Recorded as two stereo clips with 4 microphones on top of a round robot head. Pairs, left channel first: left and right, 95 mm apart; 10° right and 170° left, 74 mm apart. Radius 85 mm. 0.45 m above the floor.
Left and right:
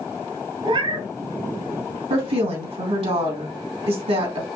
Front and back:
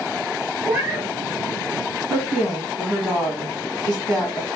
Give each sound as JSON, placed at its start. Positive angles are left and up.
{"t": 0.6, "sound": "a cat meowing", "azimuth_deg": -115, "distance_m": 1.3}
{"t": 2.1, "sound": "a woman speaking", "azimuth_deg": -90, "distance_m": 3.0}